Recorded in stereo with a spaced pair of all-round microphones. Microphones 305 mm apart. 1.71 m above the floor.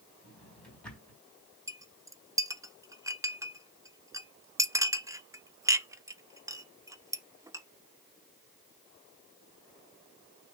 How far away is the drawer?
About 3.5 m.